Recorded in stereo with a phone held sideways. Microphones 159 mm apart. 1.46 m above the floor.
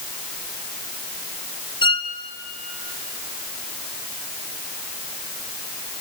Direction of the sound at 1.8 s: 30° left (ahead or behind).